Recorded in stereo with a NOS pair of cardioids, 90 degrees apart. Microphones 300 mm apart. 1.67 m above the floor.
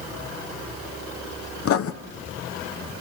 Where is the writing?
50° left, 1.2 m.